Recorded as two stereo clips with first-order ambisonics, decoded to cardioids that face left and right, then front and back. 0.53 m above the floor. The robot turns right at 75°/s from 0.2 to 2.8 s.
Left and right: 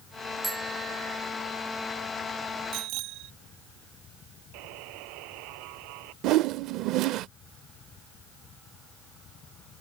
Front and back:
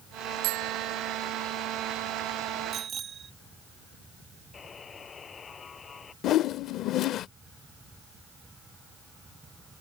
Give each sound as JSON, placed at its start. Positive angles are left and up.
{"t": 0.4, "sound": "a bicycle bell", "azimuth_deg": -175}
{"t": 2.7, "sound": "a bicycle bell", "azimuth_deg": -120}
{"t": 4.5, "sound": "a buzzer", "azimuth_deg": -70}
{"t": 6.2, "sound": "a whoosh", "azimuth_deg": -50}